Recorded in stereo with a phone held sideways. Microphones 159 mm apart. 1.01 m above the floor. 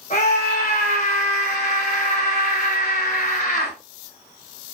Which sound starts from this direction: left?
A scream, at 0.1 s.